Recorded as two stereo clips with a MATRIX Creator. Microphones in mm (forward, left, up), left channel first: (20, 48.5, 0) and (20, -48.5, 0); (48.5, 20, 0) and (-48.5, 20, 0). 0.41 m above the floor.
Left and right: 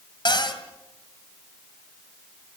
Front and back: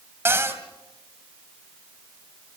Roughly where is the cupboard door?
Behind left.